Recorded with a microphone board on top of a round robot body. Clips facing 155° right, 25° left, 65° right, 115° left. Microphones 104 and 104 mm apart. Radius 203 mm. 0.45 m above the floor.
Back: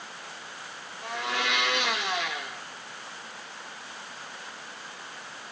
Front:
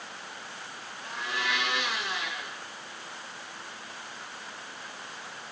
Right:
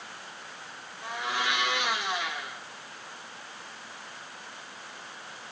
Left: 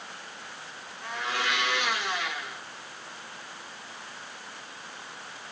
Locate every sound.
1.0 s a blender: 140° right, 3 m